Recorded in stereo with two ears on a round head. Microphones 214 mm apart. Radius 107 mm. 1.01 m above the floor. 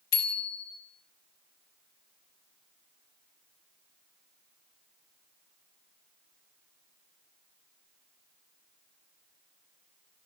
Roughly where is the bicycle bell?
Left.